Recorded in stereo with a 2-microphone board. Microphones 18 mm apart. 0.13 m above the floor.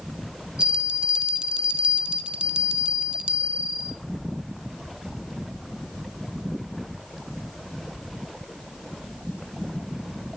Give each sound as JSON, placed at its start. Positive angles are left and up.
{"t": 0.6, "sound": "a bell", "side_deg": -75, "distance_m": 1.0}